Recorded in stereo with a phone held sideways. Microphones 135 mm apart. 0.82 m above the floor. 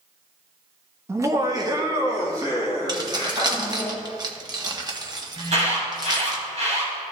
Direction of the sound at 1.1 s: 20° right (ahead or behind).